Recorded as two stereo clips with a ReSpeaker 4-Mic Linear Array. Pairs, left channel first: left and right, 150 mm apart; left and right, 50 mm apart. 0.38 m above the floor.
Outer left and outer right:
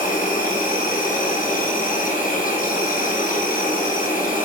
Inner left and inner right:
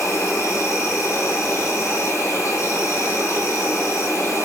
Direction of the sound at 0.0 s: 85° left.